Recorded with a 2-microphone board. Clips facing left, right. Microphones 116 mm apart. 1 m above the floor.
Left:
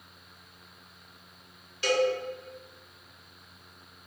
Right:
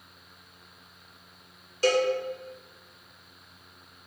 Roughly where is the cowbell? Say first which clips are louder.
Right 2 dB; right.